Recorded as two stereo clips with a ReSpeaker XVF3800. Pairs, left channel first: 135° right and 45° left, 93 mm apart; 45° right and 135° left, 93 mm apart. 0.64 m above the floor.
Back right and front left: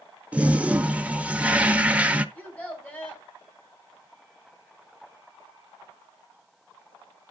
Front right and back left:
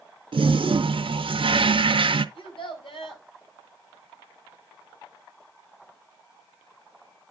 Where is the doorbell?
I don't hear a doorbell.